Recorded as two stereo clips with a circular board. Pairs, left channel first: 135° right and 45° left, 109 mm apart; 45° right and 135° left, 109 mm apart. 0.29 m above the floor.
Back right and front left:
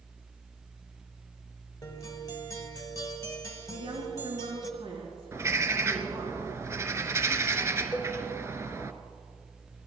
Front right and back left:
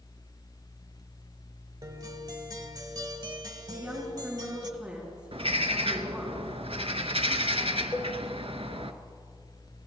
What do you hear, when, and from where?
1.8 s a guitar: 175° left, 1.1 m
3.7 s a woman speaking: 55° left, 3.5 m
5.3 s a bird: 110° left, 0.8 m
7.9 s a cowbell: 100° right, 0.9 m